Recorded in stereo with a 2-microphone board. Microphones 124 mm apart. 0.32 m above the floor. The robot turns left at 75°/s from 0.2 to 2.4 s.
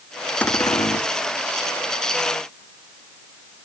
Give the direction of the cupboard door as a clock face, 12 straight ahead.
6 o'clock.